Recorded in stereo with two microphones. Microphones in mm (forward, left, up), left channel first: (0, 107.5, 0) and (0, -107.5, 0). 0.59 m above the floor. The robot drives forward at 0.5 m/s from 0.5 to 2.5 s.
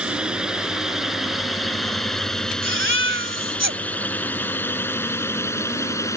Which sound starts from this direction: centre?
A drone, at 0.0 s.